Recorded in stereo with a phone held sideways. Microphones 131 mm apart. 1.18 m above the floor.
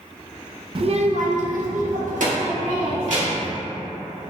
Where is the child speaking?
40° right (ahead or behind), 0.5 m; by 3.5 s 65° right (ahead or behind), 1.9 m.